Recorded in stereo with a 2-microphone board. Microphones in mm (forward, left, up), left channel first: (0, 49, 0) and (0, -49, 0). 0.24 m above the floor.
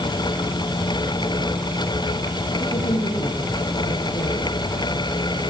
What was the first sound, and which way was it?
A woman speaking, 85° left.